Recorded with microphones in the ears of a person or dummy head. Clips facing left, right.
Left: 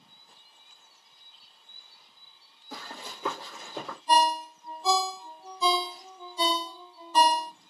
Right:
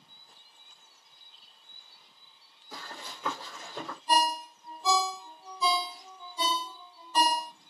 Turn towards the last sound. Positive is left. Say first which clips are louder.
# left 4 dB
turn(degrees=35)  # may be behind; listen again after turning